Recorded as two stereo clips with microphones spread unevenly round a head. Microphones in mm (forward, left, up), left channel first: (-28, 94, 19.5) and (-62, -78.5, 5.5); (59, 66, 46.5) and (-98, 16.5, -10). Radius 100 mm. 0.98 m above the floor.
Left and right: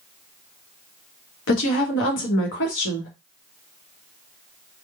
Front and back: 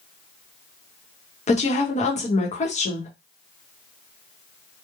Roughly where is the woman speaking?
Left.